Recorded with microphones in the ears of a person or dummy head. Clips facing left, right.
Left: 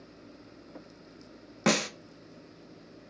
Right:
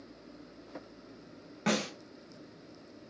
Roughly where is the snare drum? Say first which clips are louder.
Left 4 dB; left.